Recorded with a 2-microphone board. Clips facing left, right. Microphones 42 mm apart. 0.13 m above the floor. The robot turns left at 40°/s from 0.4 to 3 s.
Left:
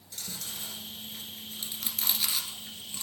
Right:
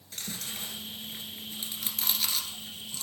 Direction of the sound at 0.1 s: 50° right (ahead or behind).